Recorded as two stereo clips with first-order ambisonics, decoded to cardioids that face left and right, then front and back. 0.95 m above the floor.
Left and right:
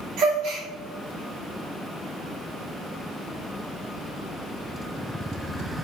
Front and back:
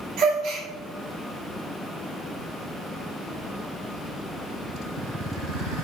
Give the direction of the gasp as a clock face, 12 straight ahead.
4 o'clock.